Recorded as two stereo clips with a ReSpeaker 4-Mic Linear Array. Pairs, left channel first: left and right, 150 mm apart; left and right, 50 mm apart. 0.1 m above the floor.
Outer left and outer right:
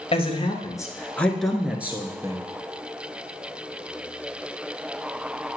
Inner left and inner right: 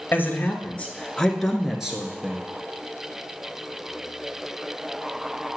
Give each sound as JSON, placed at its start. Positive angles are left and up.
{"t": 0.1, "sound": "a man speaking", "side_deg": 40, "distance_m": 1.3}